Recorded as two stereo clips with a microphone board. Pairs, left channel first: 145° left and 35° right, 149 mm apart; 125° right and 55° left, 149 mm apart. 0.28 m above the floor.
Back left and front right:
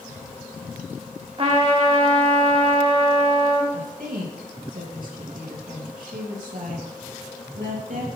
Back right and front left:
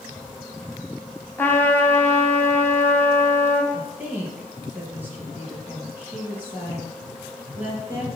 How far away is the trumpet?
About 1.9 m.